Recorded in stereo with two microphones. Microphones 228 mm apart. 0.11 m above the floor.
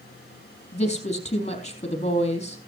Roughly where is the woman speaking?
Left.